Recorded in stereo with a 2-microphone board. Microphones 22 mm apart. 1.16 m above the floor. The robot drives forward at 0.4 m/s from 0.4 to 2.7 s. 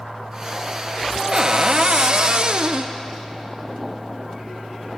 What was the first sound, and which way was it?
A cupboard door, 35° right (ahead or behind).